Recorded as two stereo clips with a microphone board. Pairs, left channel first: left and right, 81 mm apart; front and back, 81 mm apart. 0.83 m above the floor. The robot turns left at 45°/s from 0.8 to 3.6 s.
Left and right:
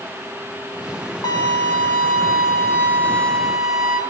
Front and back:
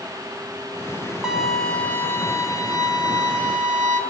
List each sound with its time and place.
1.2 s a violin: 100° left, 1.5 m; by 4.0 s 5° right, 1.5 m